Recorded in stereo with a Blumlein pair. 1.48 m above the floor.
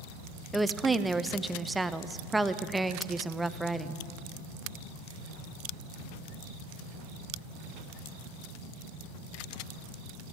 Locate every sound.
0.5 s a woman speaking: 5° right, 0.6 m